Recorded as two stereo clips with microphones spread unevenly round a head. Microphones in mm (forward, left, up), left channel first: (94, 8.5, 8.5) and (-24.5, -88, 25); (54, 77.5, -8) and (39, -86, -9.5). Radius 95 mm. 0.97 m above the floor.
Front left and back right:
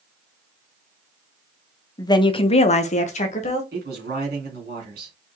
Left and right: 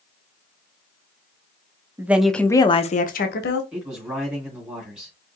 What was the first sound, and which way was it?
A woman speaking, 20° right.